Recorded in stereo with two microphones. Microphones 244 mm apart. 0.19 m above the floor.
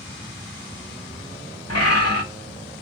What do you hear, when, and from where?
1.7 s a bird: 75° left (ahead or behind), 8.5 m